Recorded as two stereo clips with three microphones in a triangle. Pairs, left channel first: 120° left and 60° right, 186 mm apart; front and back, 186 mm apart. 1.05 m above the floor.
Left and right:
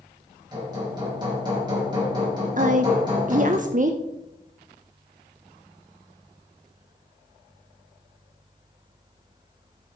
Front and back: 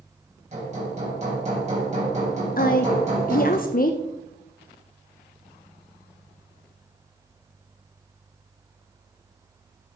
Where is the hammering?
125° right, 4.5 m.